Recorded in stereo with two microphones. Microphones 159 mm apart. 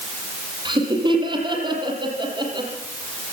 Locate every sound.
0.7 s laughter: 30° right (ahead or behind), 7 m